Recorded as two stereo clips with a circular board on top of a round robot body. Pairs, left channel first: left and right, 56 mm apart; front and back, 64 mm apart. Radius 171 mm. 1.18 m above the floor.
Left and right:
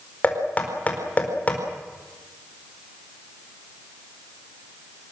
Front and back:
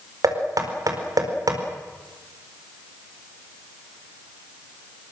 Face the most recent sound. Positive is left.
turn(degrees=155)